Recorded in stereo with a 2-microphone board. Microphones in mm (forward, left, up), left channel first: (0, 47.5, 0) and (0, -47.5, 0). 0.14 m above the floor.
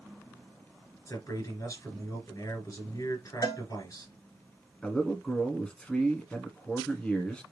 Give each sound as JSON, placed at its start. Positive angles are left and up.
{"t": 1.1, "sound": "a man speaking", "side_deg": 40, "distance_m": 2.5}
{"t": 3.4, "sound": "a cowbell", "side_deg": 50, "distance_m": 1.1}
{"t": 4.8, "sound": "a man speaking", "side_deg": 10, "distance_m": 1.1}